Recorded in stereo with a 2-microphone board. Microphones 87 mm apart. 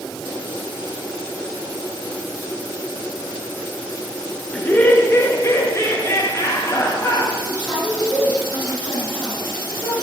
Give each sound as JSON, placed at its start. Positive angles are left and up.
{"t": 4.5, "sound": "laughter", "side_deg": 15, "distance_m": 0.9}
{"t": 7.5, "sound": "a woman speaking", "side_deg": 40, "distance_m": 5.5}